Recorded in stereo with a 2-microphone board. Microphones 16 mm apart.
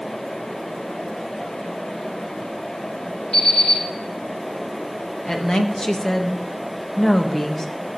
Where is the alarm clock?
65° left (ahead or behind), 8.5 m.